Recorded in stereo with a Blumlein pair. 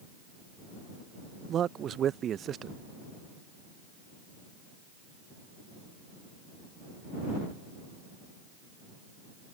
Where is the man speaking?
25° right.